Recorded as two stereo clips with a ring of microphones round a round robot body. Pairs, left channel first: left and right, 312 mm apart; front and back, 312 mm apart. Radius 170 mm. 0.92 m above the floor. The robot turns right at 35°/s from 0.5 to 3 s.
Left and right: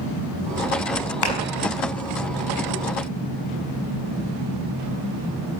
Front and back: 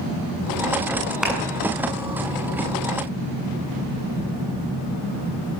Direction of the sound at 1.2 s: 90° left.